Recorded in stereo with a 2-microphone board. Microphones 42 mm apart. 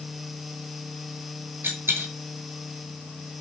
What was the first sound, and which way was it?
A dropped coin, 70° right (ahead or behind).